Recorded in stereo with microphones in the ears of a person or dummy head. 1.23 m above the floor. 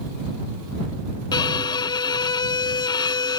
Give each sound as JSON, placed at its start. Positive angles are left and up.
{"t": 1.3, "sound": "a violin", "side_deg": 30}